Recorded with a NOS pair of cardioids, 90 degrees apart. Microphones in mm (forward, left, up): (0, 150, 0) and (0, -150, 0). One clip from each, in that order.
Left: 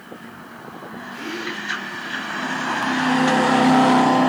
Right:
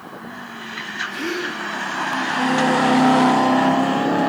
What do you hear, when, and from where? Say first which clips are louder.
1.1 s a gasp: right 3 dB; 60° right, 5 m